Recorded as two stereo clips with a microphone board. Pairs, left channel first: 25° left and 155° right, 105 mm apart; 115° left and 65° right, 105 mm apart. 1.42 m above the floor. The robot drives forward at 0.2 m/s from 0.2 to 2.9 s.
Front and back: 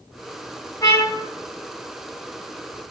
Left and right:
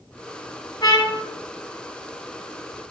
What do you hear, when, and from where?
0.8 s a trumpet: 80° left, 2 m